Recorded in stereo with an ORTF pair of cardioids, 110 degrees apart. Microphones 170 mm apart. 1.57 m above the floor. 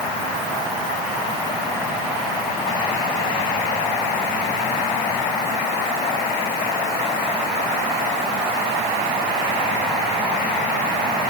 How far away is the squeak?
I don't hear a squeak.